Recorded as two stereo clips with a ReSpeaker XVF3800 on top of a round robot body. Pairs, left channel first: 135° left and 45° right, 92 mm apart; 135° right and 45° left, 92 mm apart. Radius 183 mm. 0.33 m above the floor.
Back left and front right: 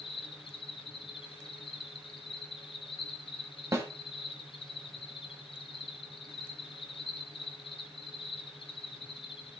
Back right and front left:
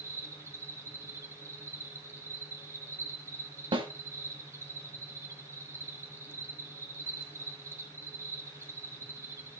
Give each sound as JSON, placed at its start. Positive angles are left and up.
{"t": 0.0, "sound": "an insect", "azimuth_deg": 110, "distance_m": 0.8}
{"t": 3.7, "sound": "a snare drum", "azimuth_deg": 15, "distance_m": 1.5}